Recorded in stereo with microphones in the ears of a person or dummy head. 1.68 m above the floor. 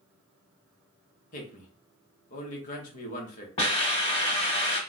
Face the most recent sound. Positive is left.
turn(degrees=30)  # may be behind; listen again after turning